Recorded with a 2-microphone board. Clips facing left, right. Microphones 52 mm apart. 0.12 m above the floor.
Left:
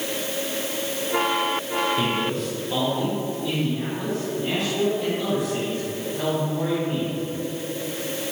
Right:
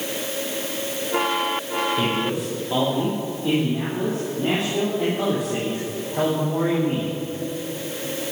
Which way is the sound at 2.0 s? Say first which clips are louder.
Right 1 dB; 10° right (ahead or behind).